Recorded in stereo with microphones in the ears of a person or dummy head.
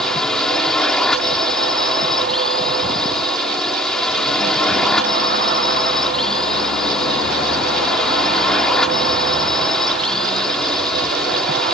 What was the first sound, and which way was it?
A drone, 5° left (ahead or behind).